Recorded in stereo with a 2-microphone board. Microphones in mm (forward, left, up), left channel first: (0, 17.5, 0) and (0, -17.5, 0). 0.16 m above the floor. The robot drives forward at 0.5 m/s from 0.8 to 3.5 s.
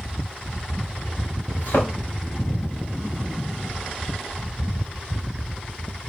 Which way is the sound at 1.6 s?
65° left (ahead or behind).